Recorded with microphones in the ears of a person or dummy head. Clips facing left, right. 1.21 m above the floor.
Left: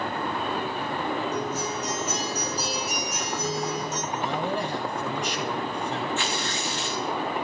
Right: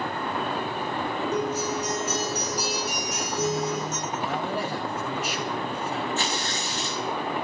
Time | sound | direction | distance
1.3 | a guitar | 55° right (ahead or behind) | 5 m
4.1 | a man speaking | 5° right (ahead or behind) | 3.5 m
6.2 | tearing paper | 35° right (ahead or behind) | 1.3 m